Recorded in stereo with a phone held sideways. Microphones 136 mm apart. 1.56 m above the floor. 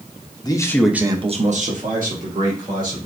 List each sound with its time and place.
0.4 s a man speaking: 30° left (ahead or behind), 1.0 m; by 3.1 s 80° right, 2.5 m